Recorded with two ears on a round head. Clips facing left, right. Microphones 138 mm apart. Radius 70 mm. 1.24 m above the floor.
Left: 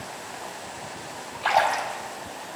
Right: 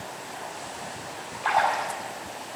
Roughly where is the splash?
Left.